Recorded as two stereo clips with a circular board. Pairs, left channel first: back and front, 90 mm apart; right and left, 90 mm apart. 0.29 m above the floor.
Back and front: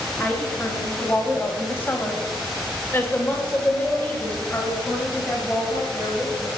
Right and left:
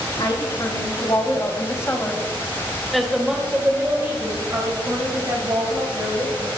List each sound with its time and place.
0.2 s a woman speaking: 110° right, 2.5 m; by 6.5 s 100° left, 3 m